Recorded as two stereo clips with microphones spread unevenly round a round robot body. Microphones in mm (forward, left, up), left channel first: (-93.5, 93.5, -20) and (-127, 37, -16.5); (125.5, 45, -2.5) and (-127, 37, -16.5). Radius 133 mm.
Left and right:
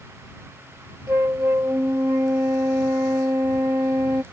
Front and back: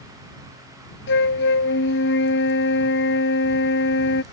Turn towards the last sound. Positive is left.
turn(degrees=-50)